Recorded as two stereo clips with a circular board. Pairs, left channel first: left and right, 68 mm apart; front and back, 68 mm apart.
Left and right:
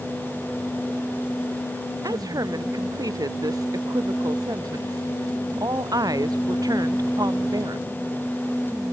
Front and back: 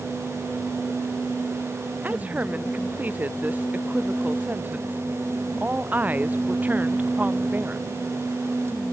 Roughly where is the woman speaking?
Behind right.